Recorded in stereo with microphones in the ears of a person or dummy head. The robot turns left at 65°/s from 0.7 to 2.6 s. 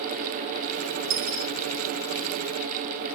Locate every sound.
1.1 s a dropped coin: 75° right (ahead or behind), 5 m; by 1.5 s 50° right (ahead or behind), 5 m